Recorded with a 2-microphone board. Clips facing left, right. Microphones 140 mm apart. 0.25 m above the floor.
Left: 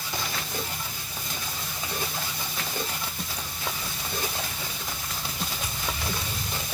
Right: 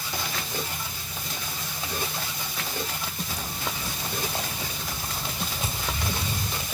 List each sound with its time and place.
3.3 s footsteps: 45° right (ahead or behind), 3.5 m; by 6.6 s 20° right (ahead or behind), 4 m